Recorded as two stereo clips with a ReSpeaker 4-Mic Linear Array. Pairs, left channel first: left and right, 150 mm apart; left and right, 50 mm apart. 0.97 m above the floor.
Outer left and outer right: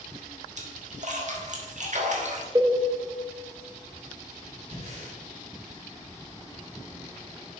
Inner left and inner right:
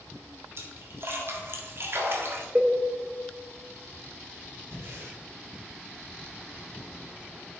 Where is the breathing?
50° right (ahead or behind), 2.5 m.